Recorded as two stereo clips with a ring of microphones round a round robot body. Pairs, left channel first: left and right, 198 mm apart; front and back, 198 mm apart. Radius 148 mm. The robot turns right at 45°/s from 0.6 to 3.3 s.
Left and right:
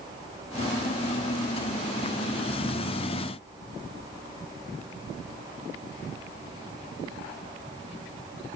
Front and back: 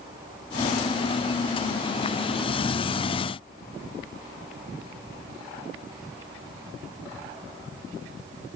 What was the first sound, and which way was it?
Only background noise.